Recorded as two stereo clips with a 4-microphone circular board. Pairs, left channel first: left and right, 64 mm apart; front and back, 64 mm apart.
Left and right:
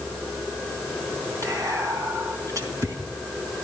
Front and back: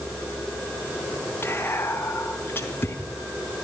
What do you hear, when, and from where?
1.4 s whispering: 55° right, 3.5 m